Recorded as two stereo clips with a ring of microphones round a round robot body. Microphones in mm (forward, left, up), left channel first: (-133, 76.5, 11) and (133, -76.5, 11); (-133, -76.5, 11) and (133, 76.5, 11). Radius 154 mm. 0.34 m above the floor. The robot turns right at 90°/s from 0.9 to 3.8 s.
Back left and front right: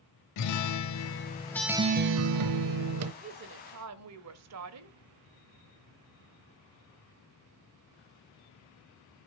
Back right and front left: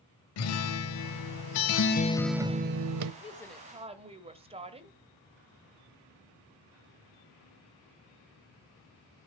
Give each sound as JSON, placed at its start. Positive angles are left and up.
{"t": 0.4, "sound": "a guitar", "azimuth_deg": 175, "distance_m": 0.9}
{"t": 3.2, "sound": "a woman speaking", "azimuth_deg": -90, "distance_m": 1.3}